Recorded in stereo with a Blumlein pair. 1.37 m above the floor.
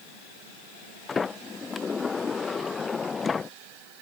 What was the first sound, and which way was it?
A sliding door, 15° left.